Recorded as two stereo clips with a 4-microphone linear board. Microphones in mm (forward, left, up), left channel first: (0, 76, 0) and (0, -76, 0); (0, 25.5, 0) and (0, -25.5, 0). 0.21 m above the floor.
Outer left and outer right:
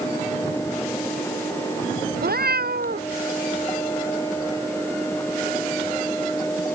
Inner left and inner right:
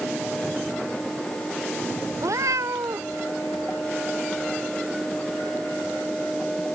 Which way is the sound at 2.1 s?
90° right.